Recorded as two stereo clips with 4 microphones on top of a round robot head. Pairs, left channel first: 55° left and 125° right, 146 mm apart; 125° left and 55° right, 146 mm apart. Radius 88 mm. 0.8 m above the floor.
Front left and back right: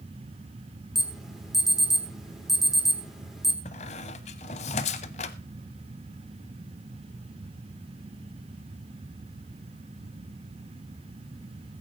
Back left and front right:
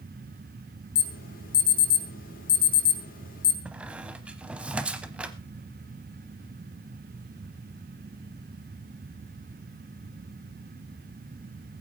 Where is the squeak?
25° left, 0.7 m.